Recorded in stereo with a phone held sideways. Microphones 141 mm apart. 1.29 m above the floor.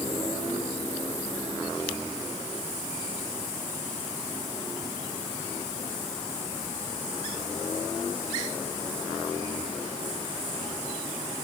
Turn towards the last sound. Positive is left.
No sound to turn to.